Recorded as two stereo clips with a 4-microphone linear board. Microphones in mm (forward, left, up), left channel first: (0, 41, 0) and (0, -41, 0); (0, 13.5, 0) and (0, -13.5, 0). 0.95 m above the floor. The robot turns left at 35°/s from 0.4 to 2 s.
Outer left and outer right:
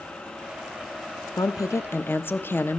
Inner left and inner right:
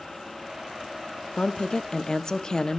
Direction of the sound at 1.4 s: 45° left (ahead or behind).